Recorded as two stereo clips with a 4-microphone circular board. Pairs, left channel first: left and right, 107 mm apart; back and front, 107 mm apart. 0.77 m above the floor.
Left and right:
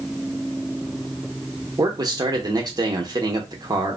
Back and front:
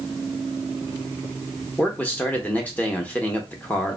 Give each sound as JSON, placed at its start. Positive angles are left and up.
{"t": 1.8, "sound": "a man speaking", "azimuth_deg": -115, "distance_m": 0.8}